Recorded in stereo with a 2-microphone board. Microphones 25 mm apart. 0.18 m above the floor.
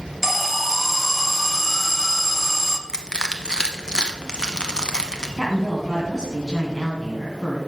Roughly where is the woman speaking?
Centre.